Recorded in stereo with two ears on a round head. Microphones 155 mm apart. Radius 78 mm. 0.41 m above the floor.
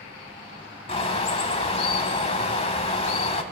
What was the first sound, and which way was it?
A bird, 35° left (ahead or behind).